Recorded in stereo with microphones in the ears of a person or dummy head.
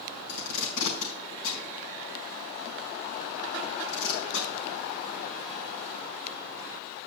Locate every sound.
0.3 s tape being pulled: 75° left (ahead or behind), 4.5 m